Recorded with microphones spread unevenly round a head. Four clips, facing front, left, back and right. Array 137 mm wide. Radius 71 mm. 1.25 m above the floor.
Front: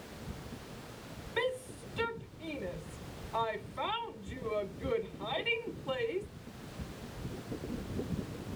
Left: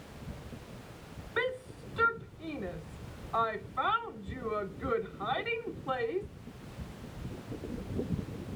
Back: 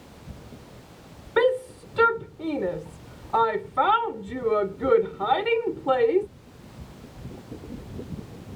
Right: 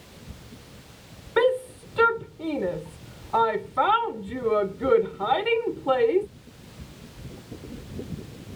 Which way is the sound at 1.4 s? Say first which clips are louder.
Right 13 dB, back 14 dB; 140° right.